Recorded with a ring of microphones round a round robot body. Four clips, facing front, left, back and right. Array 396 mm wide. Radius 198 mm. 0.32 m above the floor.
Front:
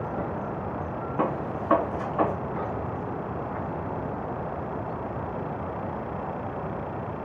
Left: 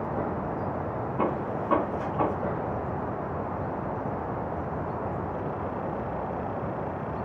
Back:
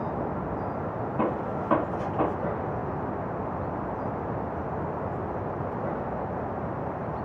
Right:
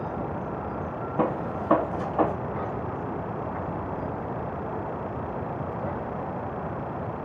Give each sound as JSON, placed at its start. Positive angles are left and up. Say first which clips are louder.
{"t": 1.2, "sound": "a gunshot", "louder": "right 2 dB, front 1 dB", "azimuth_deg": -70, "distance_m": 0.8}